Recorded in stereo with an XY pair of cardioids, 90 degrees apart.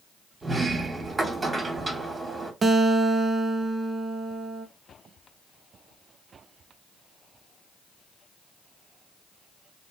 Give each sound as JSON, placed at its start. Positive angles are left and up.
{"t": 0.4, "sound": "a sliding door", "azimuth_deg": -30, "distance_m": 1.2}
{"t": 2.6, "sound": "a guitar", "azimuth_deg": -40, "distance_m": 0.5}